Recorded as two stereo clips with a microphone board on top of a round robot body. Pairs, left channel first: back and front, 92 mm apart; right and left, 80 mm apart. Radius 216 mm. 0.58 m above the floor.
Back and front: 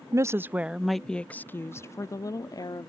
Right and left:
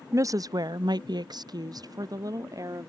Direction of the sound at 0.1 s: 45° left.